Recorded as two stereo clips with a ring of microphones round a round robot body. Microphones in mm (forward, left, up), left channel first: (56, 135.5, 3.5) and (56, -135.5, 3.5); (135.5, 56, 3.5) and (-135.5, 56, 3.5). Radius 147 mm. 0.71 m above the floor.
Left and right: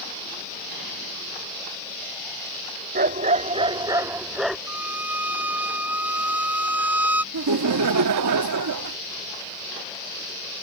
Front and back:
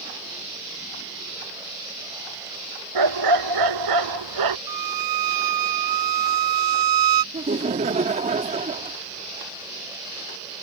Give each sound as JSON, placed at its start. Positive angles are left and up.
{"t": 3.0, "sound": "a dog barking", "azimuth_deg": -155}
{"t": 4.7, "sound": "a violin", "azimuth_deg": -175}
{"t": 7.3, "sound": "laughter", "azimuth_deg": -115}